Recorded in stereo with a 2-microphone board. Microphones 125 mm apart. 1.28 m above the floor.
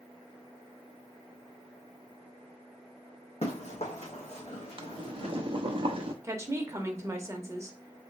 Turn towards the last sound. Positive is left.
turn(degrees=-20)  # may be behind; listen again after turning